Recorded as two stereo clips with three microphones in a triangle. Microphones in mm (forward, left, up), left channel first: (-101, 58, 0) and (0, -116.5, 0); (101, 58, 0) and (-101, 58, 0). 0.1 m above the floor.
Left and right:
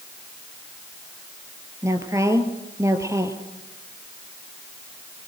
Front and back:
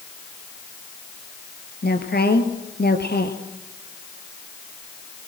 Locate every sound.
1.8 s a woman speaking: 10° left, 2 m